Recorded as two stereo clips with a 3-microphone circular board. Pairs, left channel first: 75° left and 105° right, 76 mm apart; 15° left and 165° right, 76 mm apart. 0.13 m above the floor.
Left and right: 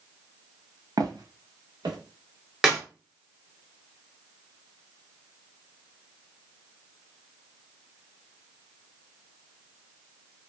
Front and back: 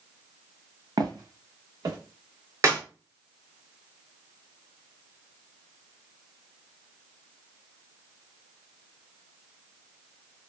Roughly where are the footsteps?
Behind right.